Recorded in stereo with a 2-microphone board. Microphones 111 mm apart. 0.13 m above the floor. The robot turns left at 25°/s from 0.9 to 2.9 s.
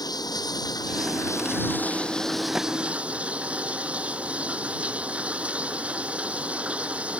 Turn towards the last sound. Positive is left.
turn(degrees=-10)